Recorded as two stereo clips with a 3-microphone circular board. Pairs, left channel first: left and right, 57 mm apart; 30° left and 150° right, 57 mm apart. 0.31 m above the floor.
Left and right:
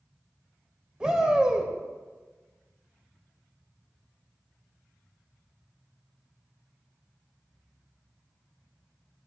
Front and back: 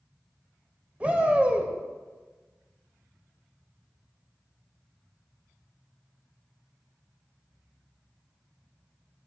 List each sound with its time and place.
1.0 s a shout: 140° right, 0.9 m